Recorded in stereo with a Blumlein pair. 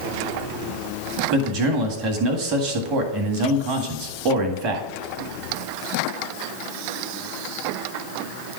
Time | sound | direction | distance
1.3 | a man speaking | 35° right | 1.8 m